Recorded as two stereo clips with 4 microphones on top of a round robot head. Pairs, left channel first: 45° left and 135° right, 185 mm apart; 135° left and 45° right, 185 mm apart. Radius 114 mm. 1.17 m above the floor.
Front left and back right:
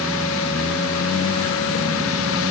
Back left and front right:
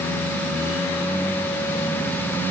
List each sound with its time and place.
Only background noise.